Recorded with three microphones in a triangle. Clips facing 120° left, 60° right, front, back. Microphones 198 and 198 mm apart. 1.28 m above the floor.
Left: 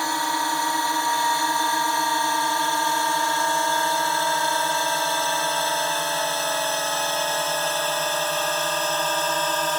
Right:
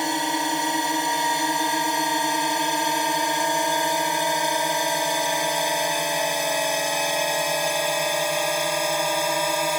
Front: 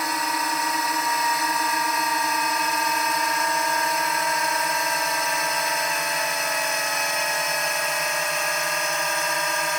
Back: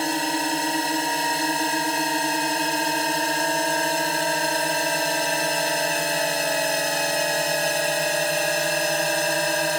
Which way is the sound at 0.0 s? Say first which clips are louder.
Right 2 dB, back 4 dB; 125° right.